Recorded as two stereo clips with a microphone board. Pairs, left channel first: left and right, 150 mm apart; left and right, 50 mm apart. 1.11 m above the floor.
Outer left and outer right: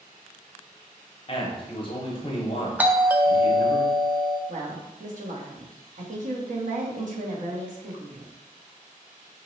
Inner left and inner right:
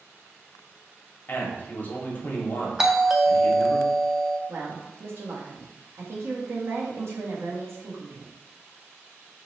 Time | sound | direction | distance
1.3 | a man speaking | 35° left (ahead or behind) | 1.2 m
2.8 | a doorbell | 10° right (ahead or behind) | 0.5 m
4.5 | a woman speaking | 55° right (ahead or behind) | 1.2 m